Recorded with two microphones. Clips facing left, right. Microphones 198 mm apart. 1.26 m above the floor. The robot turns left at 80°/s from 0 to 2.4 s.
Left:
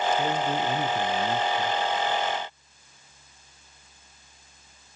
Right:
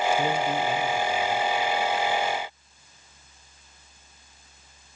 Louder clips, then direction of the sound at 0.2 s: Right 1 dB; 165° right.